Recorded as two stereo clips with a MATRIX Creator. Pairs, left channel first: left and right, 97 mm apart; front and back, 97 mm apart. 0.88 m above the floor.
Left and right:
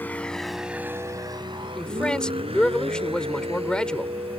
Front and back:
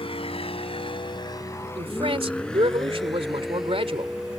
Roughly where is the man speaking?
Behind.